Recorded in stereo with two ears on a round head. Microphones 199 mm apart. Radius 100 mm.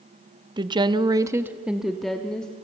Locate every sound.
0.6 s a woman speaking: 20° right (ahead or behind), 0.7 m; by 2.5 s 5° left (ahead or behind), 1.2 m